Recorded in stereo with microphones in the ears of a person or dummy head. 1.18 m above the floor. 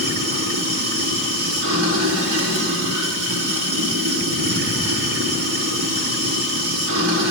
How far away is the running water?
About 2.5 m.